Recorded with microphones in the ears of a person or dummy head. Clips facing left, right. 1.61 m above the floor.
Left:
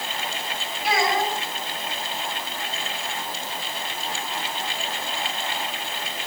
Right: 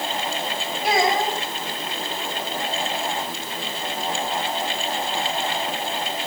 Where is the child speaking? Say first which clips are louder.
Right 2 dB; 40° right (ahead or behind), 5 m.